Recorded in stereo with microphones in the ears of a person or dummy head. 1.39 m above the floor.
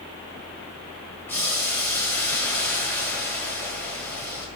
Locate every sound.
1.3 s boiling: 5° left (ahead or behind), 2 m